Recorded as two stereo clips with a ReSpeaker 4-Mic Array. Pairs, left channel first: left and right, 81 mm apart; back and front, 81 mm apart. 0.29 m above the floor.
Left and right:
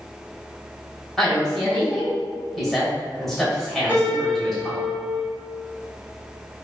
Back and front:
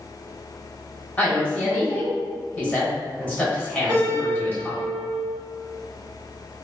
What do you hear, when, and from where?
1.2 s a woman speaking: 170° left, 1.1 m
3.9 s a piano: 25° right, 1.5 m